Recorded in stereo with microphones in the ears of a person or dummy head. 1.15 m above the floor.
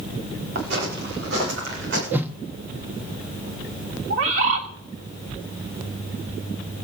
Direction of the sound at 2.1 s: 10° right (ahead or behind).